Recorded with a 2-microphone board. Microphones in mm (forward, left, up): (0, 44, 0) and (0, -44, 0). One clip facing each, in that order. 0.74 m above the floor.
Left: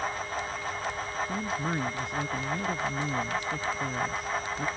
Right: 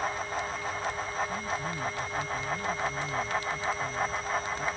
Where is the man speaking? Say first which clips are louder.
Left 2 dB; 70° left (ahead or behind).